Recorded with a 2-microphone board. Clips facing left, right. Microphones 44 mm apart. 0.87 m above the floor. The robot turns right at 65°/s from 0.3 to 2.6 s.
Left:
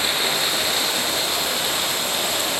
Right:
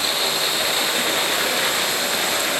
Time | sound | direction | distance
0.0 | running water | 165° left | 5.5 m